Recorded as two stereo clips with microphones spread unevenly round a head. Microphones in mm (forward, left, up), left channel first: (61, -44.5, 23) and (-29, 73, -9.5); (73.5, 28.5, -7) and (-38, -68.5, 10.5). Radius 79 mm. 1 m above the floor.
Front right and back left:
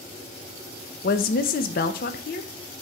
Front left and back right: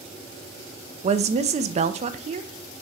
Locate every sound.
1.0 s a woman speaking: 90° right, 0.6 m